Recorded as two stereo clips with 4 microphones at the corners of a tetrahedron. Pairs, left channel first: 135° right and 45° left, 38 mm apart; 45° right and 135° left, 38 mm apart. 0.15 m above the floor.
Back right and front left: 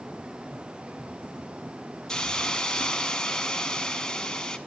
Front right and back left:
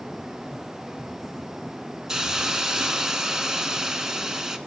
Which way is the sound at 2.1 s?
175° right.